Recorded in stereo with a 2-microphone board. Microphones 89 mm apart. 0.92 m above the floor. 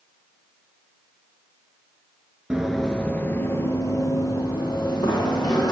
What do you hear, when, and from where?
2.5 s running footsteps: 10° right (ahead or behind), 0.9 m; by 5.7 s 50° left (ahead or behind), 3 m